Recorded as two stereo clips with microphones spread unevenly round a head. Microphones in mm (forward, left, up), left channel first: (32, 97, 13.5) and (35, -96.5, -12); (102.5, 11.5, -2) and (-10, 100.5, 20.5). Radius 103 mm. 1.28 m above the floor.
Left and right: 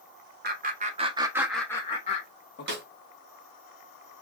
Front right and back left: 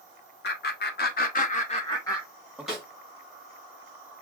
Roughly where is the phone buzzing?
I don't hear a phone buzzing.